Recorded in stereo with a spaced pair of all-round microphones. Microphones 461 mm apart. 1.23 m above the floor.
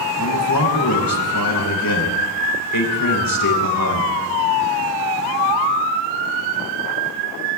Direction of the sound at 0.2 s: 45° left (ahead or behind).